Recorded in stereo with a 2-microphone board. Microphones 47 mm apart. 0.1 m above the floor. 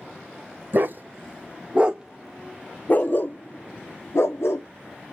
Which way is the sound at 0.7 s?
50° right (ahead or behind).